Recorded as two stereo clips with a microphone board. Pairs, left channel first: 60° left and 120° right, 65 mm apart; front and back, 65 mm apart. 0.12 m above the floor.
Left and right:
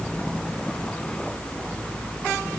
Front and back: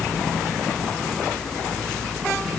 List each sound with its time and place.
Only background noise.